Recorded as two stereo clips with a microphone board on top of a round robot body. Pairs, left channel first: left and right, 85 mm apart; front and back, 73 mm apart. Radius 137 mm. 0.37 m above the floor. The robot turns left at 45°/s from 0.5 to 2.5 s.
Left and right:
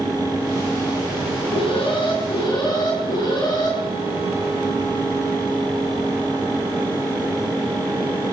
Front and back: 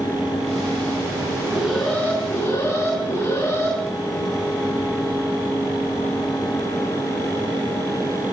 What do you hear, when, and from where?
1.5 s an alarm: 95° left, 6.5 m; by 3.8 s 50° left, 6.5 m